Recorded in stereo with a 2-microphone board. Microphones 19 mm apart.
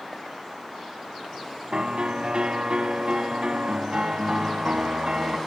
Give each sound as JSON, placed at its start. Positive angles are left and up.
{"t": 1.7, "sound": "a piano", "side_deg": -70, "distance_m": 3.0}